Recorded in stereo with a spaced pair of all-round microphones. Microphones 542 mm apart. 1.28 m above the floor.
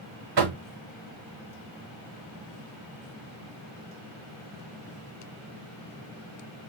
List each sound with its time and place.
0.4 s knocking: 50° right (ahead or behind), 0.5 m